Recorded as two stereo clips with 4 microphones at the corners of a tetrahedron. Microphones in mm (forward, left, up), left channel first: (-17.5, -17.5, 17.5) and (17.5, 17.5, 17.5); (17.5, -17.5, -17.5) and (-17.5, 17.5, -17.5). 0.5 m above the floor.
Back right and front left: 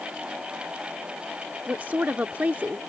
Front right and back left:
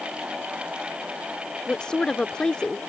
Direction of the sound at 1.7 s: 15° left.